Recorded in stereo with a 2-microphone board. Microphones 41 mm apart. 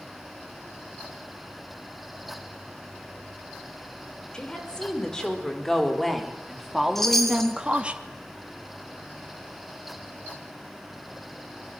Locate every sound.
4.3 s a woman speaking: 20° left (ahead or behind), 6 m; by 8.0 s 30° right (ahead or behind), 2.5 m
7.0 s a chime: 5° left (ahead or behind), 3.5 m